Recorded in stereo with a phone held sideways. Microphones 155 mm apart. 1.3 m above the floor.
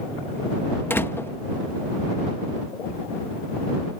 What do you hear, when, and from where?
0.9 s a door slam: 15° left (ahead or behind)